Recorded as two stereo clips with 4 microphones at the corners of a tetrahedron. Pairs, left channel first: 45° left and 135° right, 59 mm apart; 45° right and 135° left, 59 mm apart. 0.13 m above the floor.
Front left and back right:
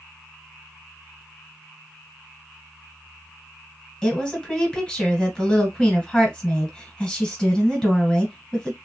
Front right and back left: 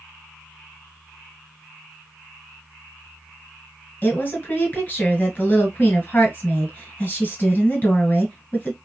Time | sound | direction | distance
4.0 | a woman speaking | 20° right | 1.3 m